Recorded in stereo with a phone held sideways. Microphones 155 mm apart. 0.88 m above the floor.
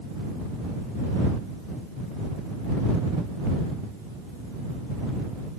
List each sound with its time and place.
Only background noise.